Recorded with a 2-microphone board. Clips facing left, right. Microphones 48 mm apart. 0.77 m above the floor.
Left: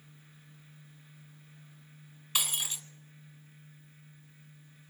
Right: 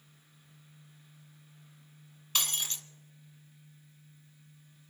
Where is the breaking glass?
10° left (ahead or behind), 0.9 m.